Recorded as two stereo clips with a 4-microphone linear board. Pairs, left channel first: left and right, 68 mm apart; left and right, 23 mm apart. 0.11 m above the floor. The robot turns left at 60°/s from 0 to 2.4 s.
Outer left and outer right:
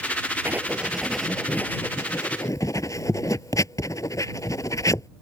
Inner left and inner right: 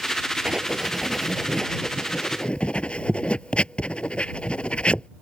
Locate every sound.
0.5 s writing: 30° right (ahead or behind); by 5.1 s 55° left (ahead or behind)